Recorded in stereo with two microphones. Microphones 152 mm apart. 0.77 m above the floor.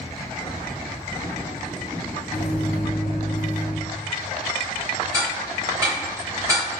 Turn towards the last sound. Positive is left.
turn(degrees=-20)  # may be behind; listen again after turning